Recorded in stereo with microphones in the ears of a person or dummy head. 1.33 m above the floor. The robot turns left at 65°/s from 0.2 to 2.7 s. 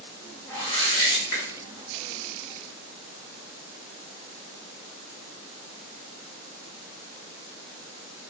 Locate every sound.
0.5 s a whoosh: 160° left, 1.8 m; by 1.5 s 100° left, 1.8 m